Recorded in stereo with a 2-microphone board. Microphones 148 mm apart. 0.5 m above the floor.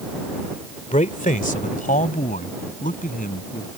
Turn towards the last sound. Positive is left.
turn(degrees=65)  # may be behind; listen again after turning